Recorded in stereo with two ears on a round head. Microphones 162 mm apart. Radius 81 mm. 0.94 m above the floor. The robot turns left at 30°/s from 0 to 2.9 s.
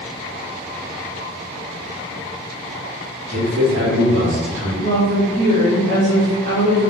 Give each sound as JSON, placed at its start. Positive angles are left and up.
{"t": 3.3, "sound": "a man speaking", "side_deg": -75, "distance_m": 1.6}
{"t": 4.8, "sound": "a woman speaking", "side_deg": -45, "distance_m": 1.0}